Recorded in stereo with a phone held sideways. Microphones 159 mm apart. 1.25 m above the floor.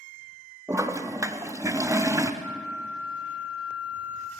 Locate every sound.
0.7 s a toilet flushing: 20° right (ahead or behind), 0.8 m
2.4 s a flute: 10° right (ahead or behind), 0.9 m